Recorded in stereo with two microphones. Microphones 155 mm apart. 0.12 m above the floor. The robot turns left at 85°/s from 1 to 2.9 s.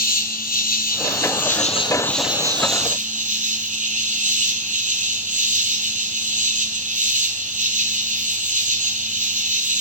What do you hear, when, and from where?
0.0 s an insect: 105° left, 0.8 m; by 9.8 s 60° right, 0.8 m